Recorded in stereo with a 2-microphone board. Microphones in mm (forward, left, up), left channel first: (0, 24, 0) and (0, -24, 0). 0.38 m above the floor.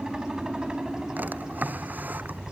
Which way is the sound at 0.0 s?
15° right (ahead or behind).